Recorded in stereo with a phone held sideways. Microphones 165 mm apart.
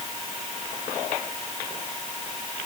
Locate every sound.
Only background noise.